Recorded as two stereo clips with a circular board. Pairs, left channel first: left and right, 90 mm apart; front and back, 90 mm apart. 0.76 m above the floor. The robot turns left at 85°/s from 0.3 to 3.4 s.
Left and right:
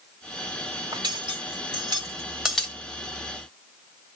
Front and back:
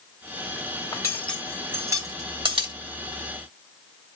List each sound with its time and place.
0.9 s cutlery clinking: 45° right, 1.9 m; by 2.7 s 160° left, 1.9 m